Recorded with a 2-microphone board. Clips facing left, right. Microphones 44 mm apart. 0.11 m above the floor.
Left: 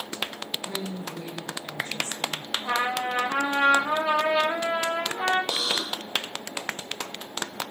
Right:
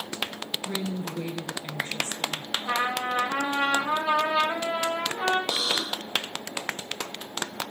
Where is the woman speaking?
35° right (ahead or behind), 2 m.